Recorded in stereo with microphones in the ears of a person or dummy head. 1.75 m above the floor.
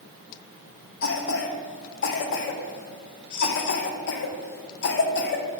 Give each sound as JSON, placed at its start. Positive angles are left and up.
{"t": 1.0, "sound": "a cough", "side_deg": 55, "distance_m": 0.8}